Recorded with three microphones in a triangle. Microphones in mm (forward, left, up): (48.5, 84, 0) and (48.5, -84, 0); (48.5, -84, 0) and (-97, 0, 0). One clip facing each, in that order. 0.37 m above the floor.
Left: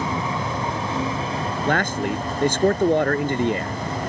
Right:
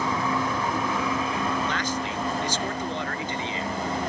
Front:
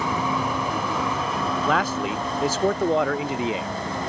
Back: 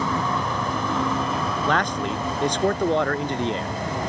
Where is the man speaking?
55° left.